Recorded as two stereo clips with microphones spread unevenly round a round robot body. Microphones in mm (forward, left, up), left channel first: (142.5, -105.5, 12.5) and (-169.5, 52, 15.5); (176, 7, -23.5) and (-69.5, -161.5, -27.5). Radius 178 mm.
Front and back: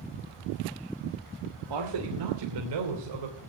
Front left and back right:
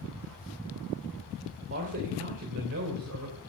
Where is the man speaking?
160° left, 2.5 m; by 3.4 s 165° left, 3.5 m.